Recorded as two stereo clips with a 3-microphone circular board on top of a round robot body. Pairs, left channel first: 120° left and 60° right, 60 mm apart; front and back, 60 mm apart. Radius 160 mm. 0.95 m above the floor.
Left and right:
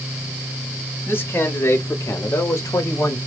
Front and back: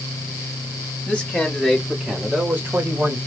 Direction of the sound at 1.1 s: 75° left.